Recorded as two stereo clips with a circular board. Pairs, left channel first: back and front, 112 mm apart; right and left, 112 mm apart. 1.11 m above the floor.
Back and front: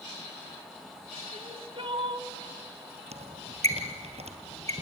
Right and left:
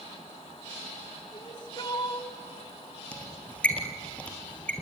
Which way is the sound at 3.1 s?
10° right.